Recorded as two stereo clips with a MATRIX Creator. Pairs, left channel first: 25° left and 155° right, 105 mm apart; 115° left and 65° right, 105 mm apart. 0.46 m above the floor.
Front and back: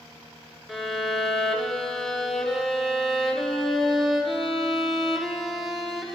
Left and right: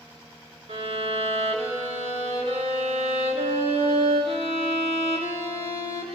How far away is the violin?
About 1.7 m.